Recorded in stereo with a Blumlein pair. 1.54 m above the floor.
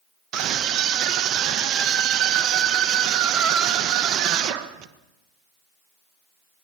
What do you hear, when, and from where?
0.3 s a scream: 35° right, 1.9 m